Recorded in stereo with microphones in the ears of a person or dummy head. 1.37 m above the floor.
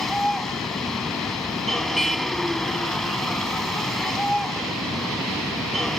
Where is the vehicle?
5° left (ahead or behind).